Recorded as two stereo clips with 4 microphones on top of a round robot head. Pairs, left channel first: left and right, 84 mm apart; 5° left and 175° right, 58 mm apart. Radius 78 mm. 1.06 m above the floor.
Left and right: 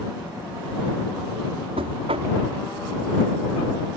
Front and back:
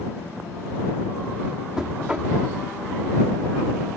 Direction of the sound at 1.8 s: 100° right.